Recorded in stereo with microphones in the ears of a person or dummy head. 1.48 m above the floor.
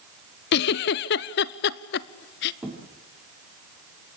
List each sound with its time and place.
0.5 s a giggle: 50° left (ahead or behind), 0.5 m
2.6 s a thud: 15° right (ahead or behind), 6.5 m